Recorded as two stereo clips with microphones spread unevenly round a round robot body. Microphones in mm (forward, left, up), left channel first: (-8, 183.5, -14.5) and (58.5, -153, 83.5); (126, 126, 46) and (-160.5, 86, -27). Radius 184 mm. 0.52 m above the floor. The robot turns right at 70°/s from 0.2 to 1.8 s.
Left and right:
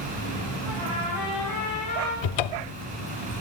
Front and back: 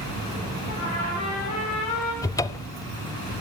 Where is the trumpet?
100° right, 6.5 m; by 2.1 s 20° right, 6.5 m.